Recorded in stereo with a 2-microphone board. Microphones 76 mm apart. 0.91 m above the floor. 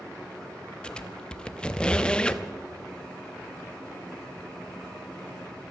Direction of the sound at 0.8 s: 10° left (ahead or behind).